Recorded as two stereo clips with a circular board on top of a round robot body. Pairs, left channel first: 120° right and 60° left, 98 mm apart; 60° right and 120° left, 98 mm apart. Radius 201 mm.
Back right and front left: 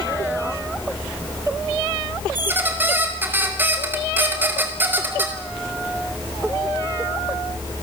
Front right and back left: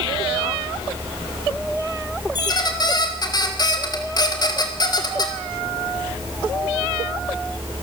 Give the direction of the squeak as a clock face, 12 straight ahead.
12 o'clock.